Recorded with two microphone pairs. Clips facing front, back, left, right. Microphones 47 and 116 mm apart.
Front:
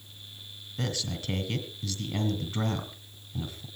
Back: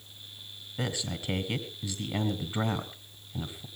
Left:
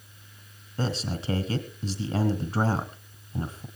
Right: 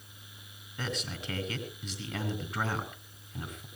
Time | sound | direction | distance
0.8 | a man speaking | 115° left | 1.4 m